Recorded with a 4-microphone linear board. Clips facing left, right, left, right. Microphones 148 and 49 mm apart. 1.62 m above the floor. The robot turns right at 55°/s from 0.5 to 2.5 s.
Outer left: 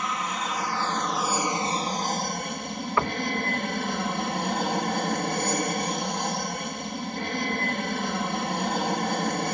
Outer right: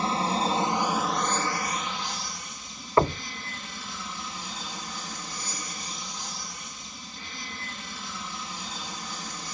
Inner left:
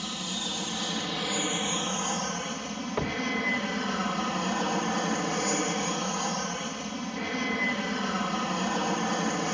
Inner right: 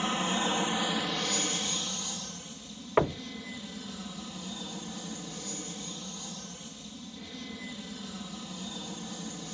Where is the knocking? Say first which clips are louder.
Outer right 5 dB, inner right 4 dB; 30° right (ahead or behind).